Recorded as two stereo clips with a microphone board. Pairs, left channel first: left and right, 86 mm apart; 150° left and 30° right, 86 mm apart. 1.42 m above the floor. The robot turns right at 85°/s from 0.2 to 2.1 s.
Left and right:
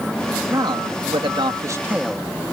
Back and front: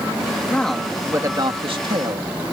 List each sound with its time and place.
0.5 s a man speaking: 140° right; by 2.3 s 5° right